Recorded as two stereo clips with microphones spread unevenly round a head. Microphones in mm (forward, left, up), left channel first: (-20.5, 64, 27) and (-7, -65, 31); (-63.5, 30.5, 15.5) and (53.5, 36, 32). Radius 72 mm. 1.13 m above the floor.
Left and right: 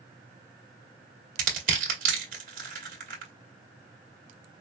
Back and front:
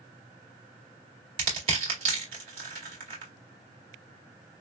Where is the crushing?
50° right, 1.9 m.